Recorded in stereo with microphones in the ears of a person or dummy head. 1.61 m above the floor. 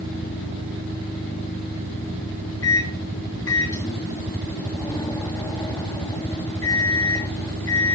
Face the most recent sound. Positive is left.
turn(degrees=20)  # may be behind; listen again after turning